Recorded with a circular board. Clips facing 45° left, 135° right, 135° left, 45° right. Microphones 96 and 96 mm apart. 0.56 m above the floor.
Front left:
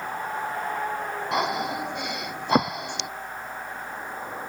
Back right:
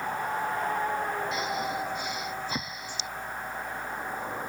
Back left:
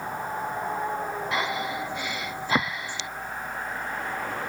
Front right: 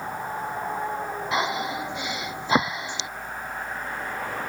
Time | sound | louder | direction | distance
1.3 | breathing | front left 4 dB, front right 4 dB | 25° left | ?